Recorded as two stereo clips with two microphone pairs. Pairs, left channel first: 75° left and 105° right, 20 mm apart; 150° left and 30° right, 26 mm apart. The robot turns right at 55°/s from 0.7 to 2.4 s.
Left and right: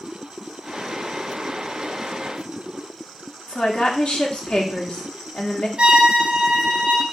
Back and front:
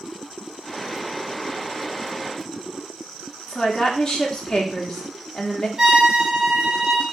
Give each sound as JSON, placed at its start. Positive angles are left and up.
{"t": 3.5, "sound": "a woman speaking", "azimuth_deg": 85, "distance_m": 1.2}
{"t": 5.8, "sound": "a violin", "azimuth_deg": -85, "distance_m": 1.2}